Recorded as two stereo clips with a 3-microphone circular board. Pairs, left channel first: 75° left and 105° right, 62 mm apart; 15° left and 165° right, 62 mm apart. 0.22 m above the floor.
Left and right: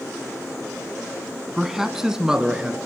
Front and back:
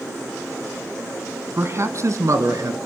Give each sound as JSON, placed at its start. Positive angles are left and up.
{"t": 1.6, "sound": "a man speaking", "azimuth_deg": 170, "distance_m": 1.7}